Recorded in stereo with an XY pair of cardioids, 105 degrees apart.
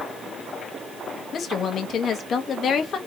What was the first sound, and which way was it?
A woman speaking, 55° left.